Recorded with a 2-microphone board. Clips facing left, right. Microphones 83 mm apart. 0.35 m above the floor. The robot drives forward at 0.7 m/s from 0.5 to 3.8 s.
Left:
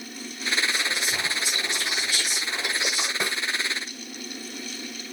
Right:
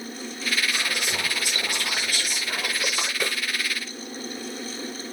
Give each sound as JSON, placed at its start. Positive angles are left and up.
{"t": 0.7, "sound": "whispering", "side_deg": -60, "distance_m": 4.0}
{"t": 3.2, "sound": "a snare drum", "side_deg": 20, "distance_m": 3.5}